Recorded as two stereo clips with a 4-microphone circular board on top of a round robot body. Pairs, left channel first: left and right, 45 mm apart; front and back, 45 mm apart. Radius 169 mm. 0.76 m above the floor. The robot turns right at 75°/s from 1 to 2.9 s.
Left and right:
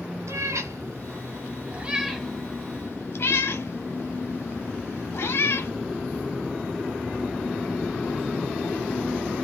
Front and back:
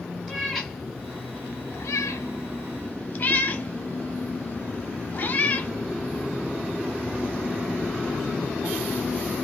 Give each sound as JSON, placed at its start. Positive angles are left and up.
{"t": 0.3, "sound": "a cat meowing", "azimuth_deg": -85, "distance_m": 1.1}